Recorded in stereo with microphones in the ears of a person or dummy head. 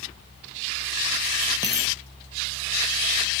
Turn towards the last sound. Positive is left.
turn(degrees=-10)  # may be behind; listen again after turning